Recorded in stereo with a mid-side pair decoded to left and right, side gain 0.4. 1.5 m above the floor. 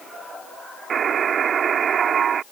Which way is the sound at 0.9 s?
65° right.